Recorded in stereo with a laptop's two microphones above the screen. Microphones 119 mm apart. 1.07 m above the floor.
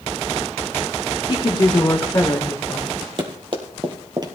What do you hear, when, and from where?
1.3 s a woman speaking: 40° left (ahead or behind), 1.1 m; by 3.1 s 25° left (ahead or behind), 2.5 m
3.2 s running footsteps: 45° right (ahead or behind), 1.8 m; by 4.3 s 35° right (ahead or behind), 1.3 m